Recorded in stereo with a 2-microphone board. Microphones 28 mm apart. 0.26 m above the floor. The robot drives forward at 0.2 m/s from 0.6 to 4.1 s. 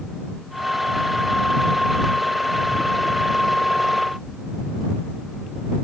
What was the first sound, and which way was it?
Only background noise.